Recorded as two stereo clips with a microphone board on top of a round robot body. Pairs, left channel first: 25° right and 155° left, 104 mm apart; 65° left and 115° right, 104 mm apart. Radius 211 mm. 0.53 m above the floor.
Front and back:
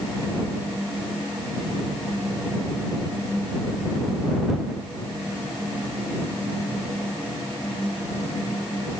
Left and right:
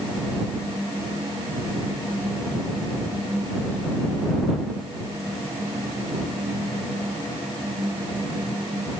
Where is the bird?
I don't hear a bird.